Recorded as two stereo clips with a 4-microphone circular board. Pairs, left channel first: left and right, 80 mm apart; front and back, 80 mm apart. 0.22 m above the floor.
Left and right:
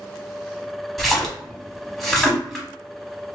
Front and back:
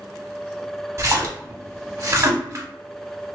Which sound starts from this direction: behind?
A splash, at 1.0 s.